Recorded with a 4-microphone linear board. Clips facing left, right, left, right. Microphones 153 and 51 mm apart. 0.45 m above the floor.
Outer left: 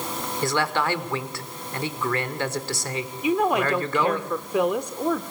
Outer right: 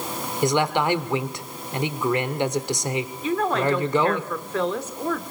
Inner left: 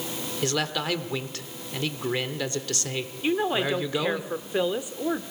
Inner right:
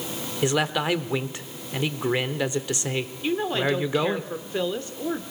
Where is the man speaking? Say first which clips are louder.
Outer right 4 dB, inner right 4 dB; 20° right (ahead or behind), 1.1 m.